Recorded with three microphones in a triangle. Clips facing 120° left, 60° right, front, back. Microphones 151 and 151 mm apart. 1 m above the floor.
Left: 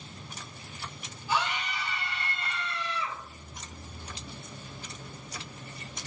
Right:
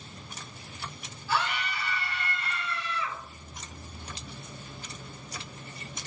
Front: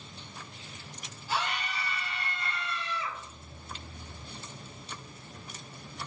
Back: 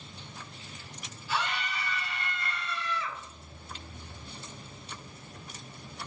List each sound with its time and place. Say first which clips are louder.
1.3 s a scream: even, even; 50° left, 2.5 m; by 3.2 s 70° left, 3 m